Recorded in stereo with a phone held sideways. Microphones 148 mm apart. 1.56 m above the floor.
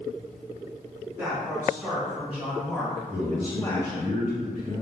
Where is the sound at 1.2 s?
20° right (ahead or behind), 1.9 m; by 4.1 s 35° left (ahead or behind), 0.7 m.